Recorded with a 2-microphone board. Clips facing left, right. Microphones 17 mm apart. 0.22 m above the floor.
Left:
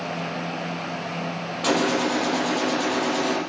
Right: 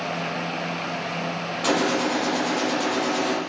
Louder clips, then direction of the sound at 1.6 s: Left 1 dB; 10° left (ahead or behind).